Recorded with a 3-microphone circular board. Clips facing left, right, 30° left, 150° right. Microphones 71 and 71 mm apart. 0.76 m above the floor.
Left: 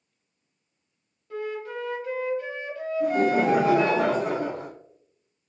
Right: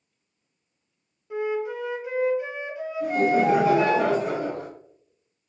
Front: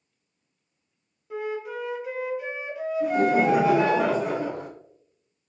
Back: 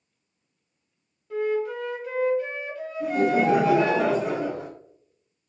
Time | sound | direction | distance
1.3 | a flute | 40° right | 0.6 m
3.0 | laughter | 115° left | 1.3 m